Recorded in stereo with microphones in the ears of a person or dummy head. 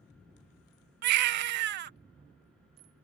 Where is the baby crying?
60° right (ahead or behind).